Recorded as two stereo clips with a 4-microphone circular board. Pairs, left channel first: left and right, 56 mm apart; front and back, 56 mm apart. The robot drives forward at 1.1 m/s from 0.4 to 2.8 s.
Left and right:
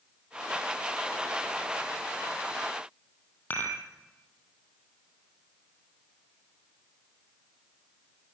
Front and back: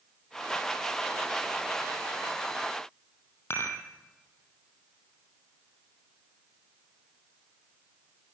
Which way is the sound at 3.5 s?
40° left.